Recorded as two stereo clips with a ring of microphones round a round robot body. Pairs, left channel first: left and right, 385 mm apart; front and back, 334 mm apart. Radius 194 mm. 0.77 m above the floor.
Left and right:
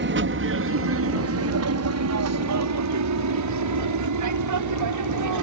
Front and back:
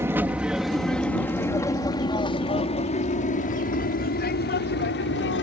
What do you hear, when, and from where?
0.0 s an aircraft: 105° right; by 5.4 s 55° right